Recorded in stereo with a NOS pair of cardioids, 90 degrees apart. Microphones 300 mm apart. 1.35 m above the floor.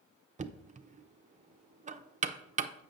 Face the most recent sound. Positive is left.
turn(degrees=-25)